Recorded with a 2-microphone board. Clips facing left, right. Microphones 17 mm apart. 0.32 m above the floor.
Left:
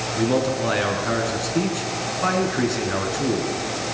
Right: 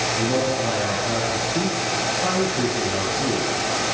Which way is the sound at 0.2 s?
35° left (ahead or behind).